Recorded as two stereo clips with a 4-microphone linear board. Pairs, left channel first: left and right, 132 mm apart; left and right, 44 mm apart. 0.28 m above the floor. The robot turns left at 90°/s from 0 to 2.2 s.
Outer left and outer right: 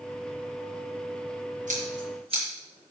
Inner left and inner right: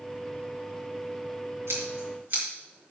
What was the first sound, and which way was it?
Scissors, 75° right (ahead or behind).